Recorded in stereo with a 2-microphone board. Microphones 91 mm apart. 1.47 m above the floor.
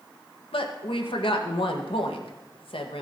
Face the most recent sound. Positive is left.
turn(degrees=75)  # may be behind; listen again after turning